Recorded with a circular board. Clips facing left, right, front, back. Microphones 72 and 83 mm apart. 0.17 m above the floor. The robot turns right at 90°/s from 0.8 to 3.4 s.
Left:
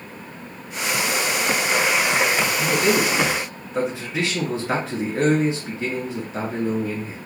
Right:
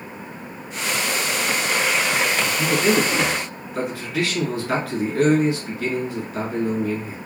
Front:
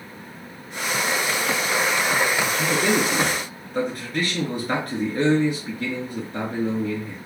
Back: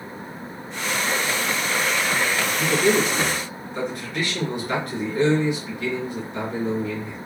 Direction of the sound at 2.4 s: 55° right.